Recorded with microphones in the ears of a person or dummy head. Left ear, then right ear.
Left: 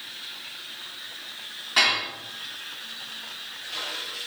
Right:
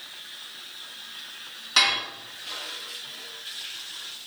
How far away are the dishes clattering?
About 1.2 m.